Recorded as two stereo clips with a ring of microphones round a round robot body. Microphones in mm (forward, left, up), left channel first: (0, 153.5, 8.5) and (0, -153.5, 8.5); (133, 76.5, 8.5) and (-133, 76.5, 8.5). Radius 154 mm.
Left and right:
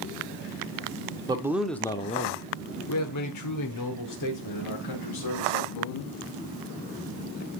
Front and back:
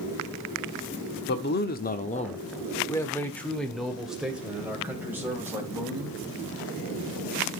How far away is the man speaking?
About 1.0 m.